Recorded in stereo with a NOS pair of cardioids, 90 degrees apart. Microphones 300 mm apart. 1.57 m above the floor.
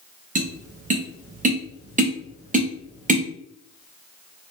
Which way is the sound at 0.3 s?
25° right.